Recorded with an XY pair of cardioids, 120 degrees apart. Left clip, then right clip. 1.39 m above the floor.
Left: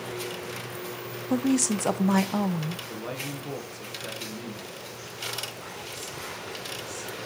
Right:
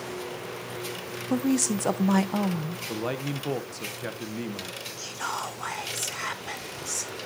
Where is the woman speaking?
Straight ahead, 0.6 m.